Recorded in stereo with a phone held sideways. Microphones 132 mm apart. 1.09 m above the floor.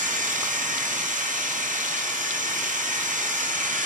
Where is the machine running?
75° right (ahead or behind), 1.1 m.